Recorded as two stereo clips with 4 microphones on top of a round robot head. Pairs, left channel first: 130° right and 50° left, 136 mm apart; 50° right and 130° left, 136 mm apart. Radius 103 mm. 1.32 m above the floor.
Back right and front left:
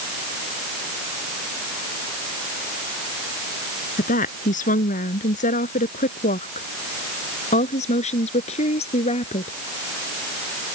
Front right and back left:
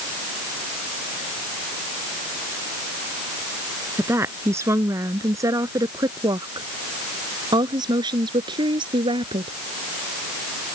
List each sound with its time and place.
4.0 s a woman speaking: 155° right; by 9.5 s 175° right